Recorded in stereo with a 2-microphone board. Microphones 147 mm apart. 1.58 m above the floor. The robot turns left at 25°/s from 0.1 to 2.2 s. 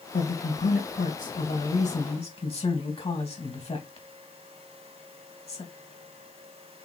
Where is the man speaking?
85° left, 2.5 m; by 5.7 s 40° left (ahead or behind), 2.5 m.